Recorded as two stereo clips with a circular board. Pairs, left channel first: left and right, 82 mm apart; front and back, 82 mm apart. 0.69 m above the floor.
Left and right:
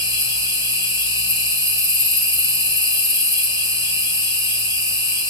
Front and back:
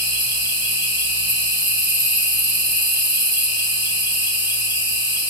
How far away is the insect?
About 2.5 m.